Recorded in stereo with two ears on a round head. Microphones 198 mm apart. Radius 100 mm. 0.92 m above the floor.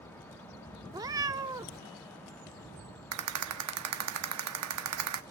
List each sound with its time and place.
0.9 s a cat meowing: 15° right (ahead or behind), 0.7 m
3.1 s a rattle: 75° right (ahead or behind), 1.1 m